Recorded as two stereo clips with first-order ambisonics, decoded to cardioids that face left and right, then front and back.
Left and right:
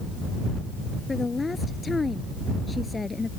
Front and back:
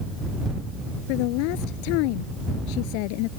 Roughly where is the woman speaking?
Ahead.